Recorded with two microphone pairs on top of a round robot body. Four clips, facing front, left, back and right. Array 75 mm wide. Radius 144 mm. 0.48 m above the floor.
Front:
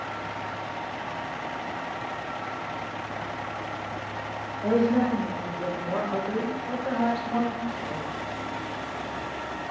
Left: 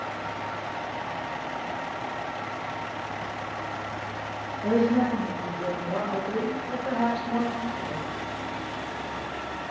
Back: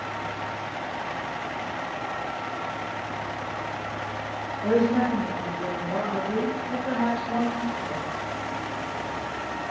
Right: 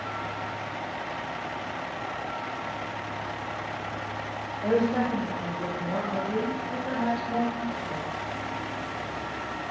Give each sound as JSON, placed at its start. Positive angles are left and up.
{"t": 4.6, "sound": "a woman speaking", "azimuth_deg": -45, "distance_m": 2.5}